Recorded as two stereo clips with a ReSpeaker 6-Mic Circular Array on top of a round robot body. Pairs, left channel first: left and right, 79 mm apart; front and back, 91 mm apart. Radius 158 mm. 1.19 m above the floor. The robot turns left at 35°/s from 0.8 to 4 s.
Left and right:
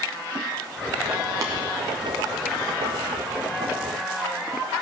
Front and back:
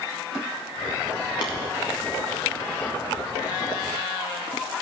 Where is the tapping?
40° right, 0.7 m; by 1.5 s 45° right, 0.7 m.